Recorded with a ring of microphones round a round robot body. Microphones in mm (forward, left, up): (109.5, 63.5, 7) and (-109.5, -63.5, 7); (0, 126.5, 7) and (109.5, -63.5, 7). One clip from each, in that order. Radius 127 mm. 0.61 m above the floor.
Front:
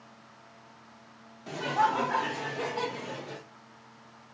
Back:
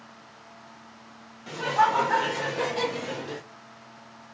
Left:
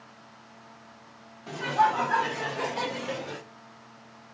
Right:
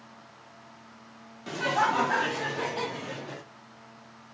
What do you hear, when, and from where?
1.5 s laughter: 70° right, 1.6 m; by 3.4 s 155° left, 1.4 m